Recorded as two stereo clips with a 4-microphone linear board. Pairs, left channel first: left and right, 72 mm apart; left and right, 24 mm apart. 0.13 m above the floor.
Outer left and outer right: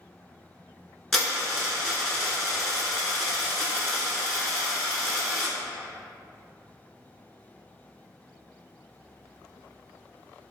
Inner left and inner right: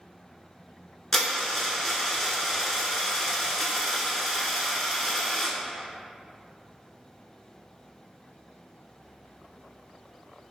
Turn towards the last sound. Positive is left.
turn(degrees=5)  # may be behind; listen again after turning